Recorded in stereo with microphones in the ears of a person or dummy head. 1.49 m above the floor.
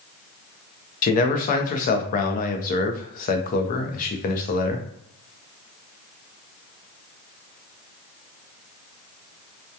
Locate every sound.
1.0 s a man speaking: 50° left (ahead or behind), 0.5 m